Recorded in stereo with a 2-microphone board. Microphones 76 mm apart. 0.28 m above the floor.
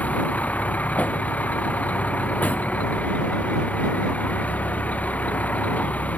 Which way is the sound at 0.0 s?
20° left (ahead or behind).